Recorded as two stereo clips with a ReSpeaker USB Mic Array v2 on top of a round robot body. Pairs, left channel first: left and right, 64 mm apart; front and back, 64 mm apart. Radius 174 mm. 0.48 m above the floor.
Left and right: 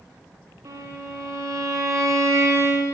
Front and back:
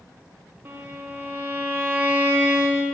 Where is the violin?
125° right, 1.0 m.